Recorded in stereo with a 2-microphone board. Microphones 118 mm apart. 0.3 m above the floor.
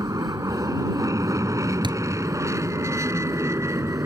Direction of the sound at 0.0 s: 30° right (ahead or behind).